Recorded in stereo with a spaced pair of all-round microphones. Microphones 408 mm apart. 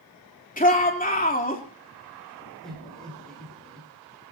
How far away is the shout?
About 3.5 m.